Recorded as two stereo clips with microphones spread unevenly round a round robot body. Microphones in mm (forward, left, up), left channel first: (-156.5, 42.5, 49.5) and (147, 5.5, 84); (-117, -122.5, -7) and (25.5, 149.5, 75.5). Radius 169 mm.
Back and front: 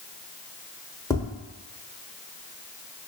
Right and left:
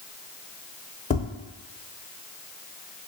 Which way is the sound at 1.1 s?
125° right.